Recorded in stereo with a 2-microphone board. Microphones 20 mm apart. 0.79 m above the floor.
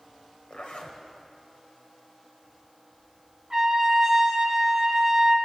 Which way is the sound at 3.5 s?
20° right (ahead or behind).